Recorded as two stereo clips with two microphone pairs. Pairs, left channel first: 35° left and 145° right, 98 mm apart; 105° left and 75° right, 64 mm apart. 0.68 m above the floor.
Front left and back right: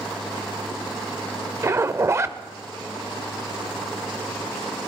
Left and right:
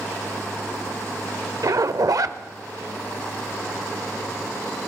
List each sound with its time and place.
1.6 s a zipper: 85° right, 0.6 m